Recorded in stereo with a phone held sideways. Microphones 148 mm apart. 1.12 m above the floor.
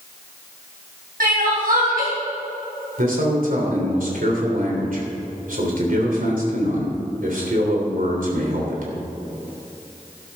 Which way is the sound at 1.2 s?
80° right.